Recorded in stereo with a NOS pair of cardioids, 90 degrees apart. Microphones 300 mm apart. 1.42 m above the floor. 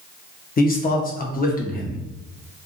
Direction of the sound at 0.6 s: 30° left.